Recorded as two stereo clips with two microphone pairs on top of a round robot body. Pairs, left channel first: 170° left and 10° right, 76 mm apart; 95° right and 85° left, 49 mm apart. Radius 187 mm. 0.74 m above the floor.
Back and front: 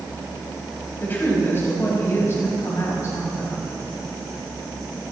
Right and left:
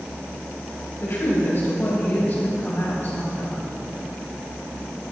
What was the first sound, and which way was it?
A woman speaking, 135° right.